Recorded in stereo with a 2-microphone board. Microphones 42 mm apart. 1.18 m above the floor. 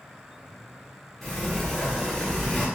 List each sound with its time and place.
1.2 s a sliding door: 10° left (ahead or behind), 1.8 m